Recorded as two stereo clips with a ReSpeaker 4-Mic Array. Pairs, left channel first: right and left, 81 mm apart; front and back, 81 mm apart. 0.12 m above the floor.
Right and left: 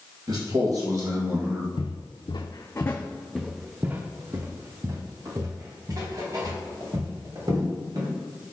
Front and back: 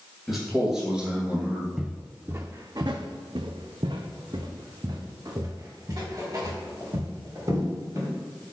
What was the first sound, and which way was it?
A man speaking, 90° left.